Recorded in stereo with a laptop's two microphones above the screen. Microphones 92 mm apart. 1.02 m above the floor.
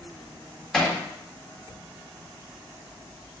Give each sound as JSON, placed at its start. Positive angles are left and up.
{"t": 0.7, "sound": "hammering", "side_deg": 5, "distance_m": 2.5}